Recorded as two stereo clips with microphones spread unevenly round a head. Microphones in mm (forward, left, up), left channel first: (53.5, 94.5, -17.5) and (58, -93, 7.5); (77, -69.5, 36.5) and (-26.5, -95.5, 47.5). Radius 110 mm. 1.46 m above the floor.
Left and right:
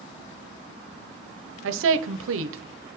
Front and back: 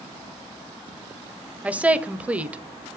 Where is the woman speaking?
85° right, 0.9 m.